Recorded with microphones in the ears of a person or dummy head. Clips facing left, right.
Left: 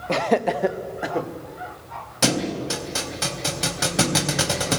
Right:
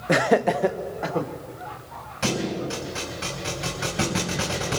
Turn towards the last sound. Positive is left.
turn(degrees=65)  # may be behind; listen again after turning